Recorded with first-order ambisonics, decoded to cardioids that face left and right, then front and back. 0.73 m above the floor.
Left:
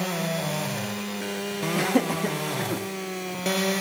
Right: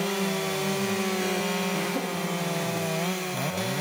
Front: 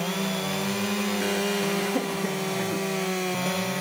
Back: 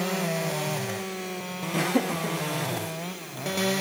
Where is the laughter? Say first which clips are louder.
Left 4 dB, back 1 dB; 130° left, 1.0 m; by 2.8 s 60° left, 1.6 m.